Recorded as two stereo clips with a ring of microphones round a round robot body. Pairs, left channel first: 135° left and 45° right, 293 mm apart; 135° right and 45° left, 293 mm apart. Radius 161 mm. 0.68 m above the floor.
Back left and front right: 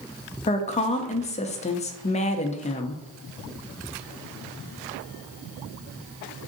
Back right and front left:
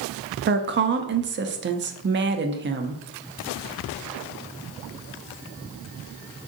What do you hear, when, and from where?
0.5 s a woman speaking: 75° left, 0.6 m